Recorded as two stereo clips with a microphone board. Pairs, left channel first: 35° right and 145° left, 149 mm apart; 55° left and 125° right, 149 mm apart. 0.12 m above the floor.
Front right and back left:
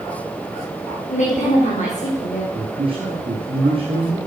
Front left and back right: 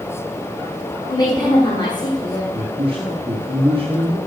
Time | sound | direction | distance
1.1 | a woman speaking | 5° right | 4 m
2.5 | a man speaking | straight behind | 2.5 m